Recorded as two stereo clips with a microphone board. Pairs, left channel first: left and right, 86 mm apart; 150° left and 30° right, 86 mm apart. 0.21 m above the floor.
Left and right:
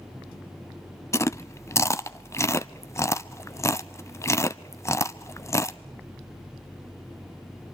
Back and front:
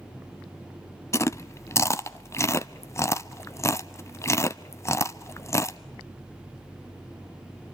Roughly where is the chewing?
Behind left.